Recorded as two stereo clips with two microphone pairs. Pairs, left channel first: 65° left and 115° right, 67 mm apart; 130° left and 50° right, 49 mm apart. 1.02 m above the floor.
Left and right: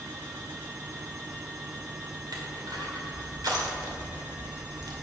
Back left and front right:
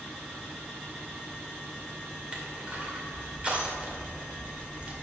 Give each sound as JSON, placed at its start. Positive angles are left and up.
{"t": 2.3, "sound": "crushing", "azimuth_deg": -120, "distance_m": 2.5}